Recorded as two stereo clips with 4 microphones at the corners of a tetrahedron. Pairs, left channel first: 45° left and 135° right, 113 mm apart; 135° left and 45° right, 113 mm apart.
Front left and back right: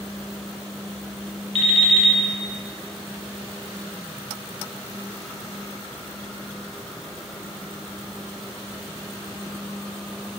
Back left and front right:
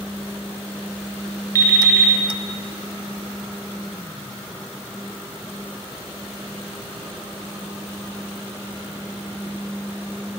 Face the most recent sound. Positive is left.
turn(degrees=-165)